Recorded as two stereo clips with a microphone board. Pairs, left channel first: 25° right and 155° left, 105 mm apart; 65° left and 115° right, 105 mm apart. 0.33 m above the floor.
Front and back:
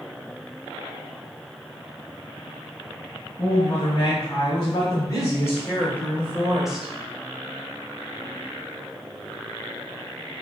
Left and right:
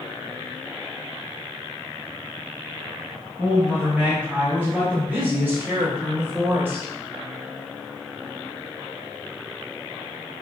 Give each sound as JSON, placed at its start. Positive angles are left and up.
{"t": 3.4, "sound": "a woman speaking", "azimuth_deg": -40, "distance_m": 2.5}